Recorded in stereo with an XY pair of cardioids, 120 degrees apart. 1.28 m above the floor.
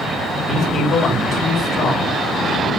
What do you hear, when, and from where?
0.4 s a man speaking: 40° left, 3.5 m